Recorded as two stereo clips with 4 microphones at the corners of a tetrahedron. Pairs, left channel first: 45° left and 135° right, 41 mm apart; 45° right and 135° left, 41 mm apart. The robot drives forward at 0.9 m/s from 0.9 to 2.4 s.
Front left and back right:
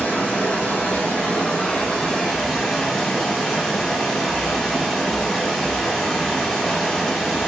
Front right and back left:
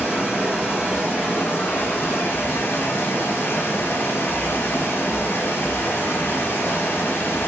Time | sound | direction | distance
0.0 | running water | 20° right | 2.5 m